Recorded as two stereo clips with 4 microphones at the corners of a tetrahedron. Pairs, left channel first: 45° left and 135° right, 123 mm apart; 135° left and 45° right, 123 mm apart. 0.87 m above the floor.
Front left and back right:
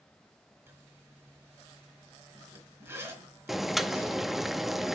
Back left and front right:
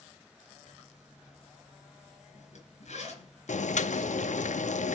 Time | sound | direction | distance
0.7 | a zipper | 155° left | 3.5 m
3.5 | boiling | 135° left | 0.7 m